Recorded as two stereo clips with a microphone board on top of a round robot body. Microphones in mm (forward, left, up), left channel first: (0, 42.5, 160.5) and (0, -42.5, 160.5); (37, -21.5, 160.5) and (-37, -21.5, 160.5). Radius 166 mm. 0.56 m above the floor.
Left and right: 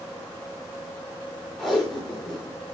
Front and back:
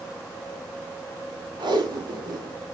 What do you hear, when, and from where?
1.6 s tape being pulled: straight behind, 6 m